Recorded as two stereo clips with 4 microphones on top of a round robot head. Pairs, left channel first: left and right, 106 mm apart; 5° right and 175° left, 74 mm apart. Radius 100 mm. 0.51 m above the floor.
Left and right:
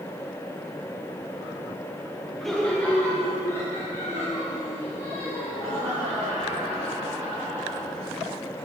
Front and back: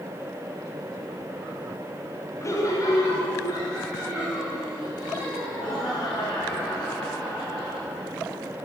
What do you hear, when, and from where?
2.4 s laughter: straight ahead, 1.2 m; by 8.1 s 30° left, 6.5 m